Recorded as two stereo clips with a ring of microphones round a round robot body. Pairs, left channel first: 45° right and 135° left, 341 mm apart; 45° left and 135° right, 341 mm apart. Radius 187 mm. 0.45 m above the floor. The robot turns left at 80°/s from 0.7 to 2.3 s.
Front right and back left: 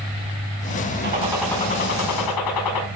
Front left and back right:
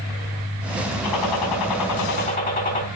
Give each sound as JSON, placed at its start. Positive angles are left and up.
{"t": 1.0, "sound": "a gunshot", "azimuth_deg": 80, "distance_m": 4.0}